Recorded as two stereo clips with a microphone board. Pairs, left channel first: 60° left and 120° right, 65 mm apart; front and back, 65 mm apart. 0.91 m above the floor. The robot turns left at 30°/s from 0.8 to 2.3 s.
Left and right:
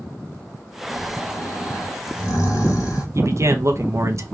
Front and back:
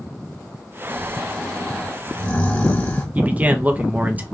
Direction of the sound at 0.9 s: 100° left.